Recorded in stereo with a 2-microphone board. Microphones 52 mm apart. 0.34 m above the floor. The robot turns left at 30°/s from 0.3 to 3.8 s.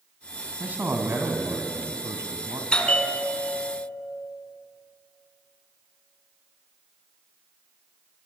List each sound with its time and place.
0.6 s a man speaking: 35° right, 3 m; by 2.6 s 95° right, 3 m
2.7 s a bell: 160° left, 1.8 m; by 3.9 s 130° left, 1.8 m